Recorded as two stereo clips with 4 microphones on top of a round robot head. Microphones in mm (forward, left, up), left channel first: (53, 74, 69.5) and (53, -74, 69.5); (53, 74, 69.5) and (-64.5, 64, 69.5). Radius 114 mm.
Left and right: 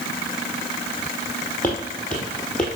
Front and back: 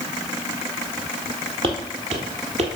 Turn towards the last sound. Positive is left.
turn(degrees=175)